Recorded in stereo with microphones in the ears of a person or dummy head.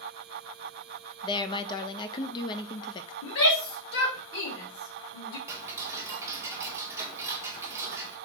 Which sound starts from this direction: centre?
Ticking, at 5.5 s.